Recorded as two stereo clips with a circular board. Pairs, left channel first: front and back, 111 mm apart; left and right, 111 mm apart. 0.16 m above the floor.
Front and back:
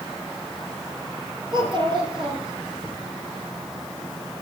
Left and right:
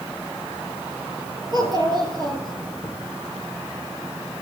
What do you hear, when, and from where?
1.5 s a child speaking: 140° right, 2.5 m